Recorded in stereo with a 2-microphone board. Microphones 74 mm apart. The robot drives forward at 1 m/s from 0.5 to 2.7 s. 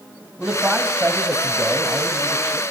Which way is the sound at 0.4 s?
10° right (ahead or behind).